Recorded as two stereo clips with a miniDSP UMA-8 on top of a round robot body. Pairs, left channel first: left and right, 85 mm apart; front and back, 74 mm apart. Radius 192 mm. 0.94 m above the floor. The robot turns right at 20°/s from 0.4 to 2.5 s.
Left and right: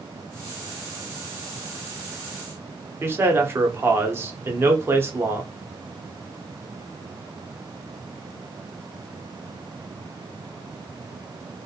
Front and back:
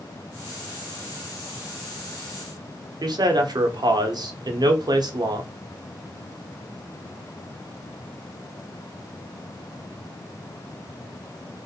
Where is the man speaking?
155° right, 0.7 m.